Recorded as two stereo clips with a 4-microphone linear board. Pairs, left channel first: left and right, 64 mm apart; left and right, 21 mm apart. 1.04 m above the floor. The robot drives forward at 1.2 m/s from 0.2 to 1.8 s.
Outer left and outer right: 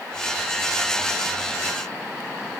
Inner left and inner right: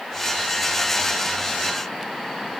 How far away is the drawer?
No drawer in this recording.